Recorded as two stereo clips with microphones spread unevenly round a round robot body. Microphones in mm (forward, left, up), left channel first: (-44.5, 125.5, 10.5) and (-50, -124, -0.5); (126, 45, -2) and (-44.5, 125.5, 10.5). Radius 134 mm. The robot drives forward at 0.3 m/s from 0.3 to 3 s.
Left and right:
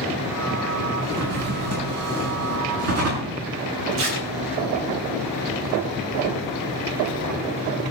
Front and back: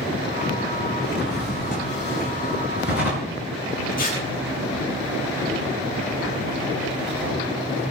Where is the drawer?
115° right, 4.5 m; by 3.4 s 120° right, 5 m.